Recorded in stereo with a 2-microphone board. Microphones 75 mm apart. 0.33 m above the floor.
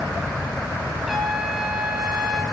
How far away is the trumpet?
About 3.5 m.